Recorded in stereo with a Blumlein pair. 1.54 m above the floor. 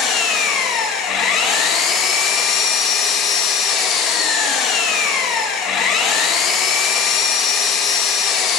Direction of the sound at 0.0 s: 30° left.